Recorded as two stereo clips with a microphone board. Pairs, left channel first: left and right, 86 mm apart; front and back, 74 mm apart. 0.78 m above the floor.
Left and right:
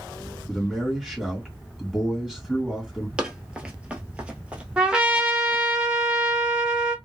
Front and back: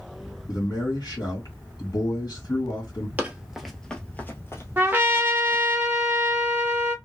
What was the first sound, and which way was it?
A man speaking, 5° right.